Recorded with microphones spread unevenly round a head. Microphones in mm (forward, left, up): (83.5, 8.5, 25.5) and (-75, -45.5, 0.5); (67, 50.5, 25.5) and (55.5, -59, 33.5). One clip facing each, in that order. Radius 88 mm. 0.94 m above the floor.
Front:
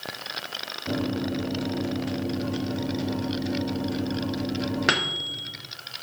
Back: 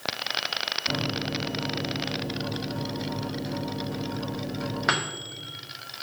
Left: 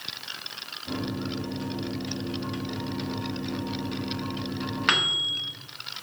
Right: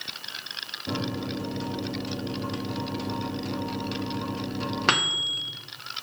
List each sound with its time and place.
0.9 s a microwave: 40° right, 1.3 m